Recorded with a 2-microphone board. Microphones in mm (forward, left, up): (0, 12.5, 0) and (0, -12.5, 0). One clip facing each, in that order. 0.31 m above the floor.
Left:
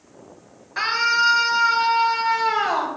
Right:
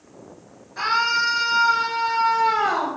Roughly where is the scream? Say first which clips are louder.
Left 1 dB; left.